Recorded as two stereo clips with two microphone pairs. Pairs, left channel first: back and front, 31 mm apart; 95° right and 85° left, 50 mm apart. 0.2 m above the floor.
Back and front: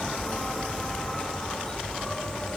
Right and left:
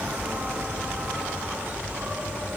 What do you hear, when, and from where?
0.0 s an insect: 125° left, 3 m